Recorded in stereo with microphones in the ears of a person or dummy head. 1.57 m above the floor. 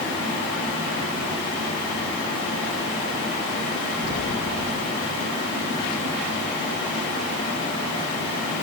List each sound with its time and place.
4.0 s an explosion: 40° left (ahead or behind), 6.5 m